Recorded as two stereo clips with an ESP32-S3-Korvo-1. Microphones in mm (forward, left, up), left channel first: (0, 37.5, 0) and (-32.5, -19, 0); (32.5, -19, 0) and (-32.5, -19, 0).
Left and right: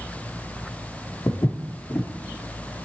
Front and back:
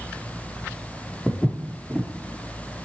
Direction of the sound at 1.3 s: 85° left.